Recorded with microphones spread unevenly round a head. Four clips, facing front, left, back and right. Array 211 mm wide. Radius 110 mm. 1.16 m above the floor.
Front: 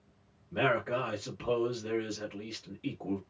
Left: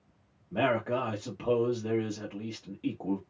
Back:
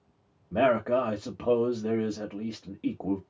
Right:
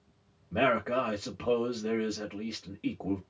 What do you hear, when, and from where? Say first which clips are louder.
0.5 s a man speaking: right 1 dB, back 6 dB; straight behind, 1.2 m